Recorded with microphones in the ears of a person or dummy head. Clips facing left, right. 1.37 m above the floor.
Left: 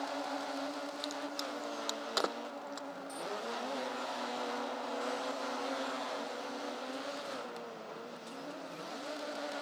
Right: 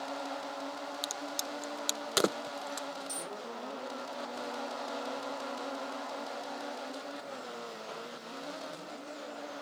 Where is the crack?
40° right (ahead or behind).